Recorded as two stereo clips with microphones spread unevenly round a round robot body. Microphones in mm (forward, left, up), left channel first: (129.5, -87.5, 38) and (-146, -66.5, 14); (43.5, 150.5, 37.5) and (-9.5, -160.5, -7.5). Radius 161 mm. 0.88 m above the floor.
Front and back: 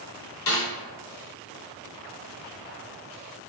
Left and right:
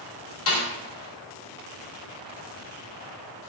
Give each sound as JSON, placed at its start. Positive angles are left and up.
{"t": 0.5, "sound": "a snare drum", "azimuth_deg": 30, "distance_m": 1.4}